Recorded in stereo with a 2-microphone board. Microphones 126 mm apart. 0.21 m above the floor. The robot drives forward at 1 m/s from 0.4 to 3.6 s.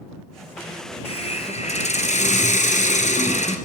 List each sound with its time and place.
1.1 s a hiss: 50° left (ahead or behind), 3 m; by 3.6 s 65° left (ahead or behind), 2.5 m